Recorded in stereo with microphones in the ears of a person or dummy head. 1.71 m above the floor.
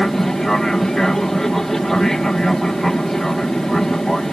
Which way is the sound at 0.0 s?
5° left (ahead or behind).